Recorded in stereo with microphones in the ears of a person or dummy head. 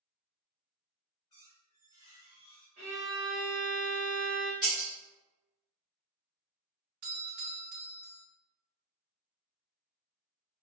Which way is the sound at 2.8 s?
50° right (ahead or behind).